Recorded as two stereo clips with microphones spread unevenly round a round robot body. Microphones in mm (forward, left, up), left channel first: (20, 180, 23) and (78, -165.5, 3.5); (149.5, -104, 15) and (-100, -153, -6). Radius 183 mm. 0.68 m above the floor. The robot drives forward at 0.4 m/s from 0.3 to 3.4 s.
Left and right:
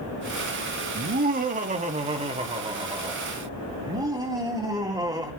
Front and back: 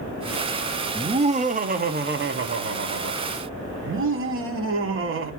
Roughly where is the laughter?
Behind right.